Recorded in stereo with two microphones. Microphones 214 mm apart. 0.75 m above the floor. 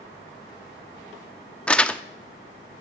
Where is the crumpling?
5° left (ahead or behind), 0.6 m.